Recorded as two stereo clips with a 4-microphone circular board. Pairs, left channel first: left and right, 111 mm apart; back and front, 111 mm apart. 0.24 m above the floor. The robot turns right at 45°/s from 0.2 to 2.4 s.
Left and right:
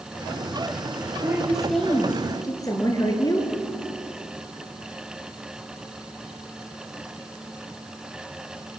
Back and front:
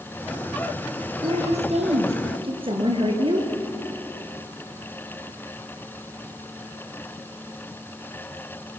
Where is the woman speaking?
20° right, 3.5 m; by 3.5 s 35° left, 3.5 m.